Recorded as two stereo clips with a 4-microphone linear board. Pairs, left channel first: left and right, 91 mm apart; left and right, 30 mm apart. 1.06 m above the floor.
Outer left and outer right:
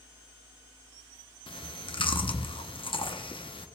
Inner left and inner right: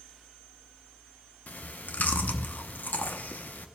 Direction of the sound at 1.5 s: 70° left (ahead or behind).